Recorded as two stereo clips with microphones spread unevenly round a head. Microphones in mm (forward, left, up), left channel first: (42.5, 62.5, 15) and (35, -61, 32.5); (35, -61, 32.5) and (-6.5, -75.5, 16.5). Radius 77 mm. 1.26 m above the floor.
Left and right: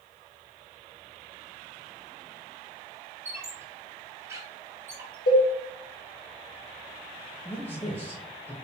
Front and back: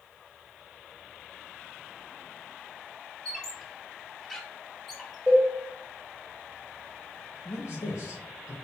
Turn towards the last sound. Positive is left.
turn(degrees=20)